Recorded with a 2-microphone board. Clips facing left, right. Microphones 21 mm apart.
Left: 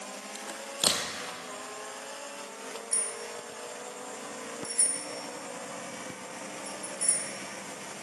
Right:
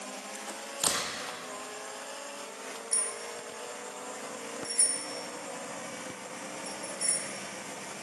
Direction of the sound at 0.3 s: 75° left (ahead or behind).